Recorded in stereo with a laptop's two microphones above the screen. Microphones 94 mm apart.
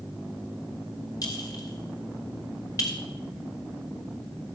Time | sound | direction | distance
1.2 | a clink | 40° left (ahead or behind) | 2.5 m